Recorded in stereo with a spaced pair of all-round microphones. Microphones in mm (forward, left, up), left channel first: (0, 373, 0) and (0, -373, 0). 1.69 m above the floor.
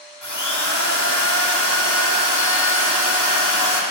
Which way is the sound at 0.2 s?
25° left (ahead or behind).